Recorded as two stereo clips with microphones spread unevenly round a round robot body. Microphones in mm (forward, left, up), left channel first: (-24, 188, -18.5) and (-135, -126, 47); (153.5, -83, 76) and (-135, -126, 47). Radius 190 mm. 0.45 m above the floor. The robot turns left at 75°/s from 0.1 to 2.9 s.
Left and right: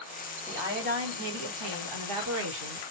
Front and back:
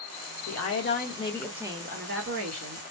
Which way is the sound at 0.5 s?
10° right.